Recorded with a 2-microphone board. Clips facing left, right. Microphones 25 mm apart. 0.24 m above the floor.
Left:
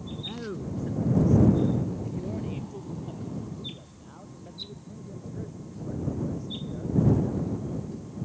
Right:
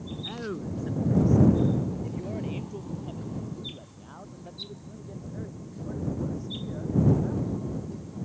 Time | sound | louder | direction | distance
0.2 | a man speaking | right 1 dB | 15° right (ahead or behind) | ?